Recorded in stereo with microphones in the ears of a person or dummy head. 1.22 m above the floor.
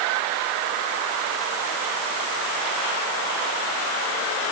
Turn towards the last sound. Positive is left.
No sound to turn to.